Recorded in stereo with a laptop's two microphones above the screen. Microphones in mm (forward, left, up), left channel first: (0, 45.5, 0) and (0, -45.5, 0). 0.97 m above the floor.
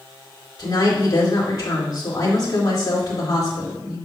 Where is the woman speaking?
45° left (ahead or behind), 2.5 m.